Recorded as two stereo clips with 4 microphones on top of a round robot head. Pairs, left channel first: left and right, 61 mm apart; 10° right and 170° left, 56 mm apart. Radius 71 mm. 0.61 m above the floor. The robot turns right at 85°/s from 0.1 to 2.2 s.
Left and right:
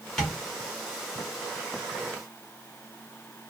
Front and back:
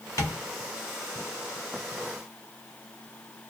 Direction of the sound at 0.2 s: 10° left.